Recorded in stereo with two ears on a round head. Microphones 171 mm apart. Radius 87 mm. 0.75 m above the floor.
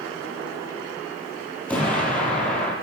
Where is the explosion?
10° left (ahead or behind), 6 m.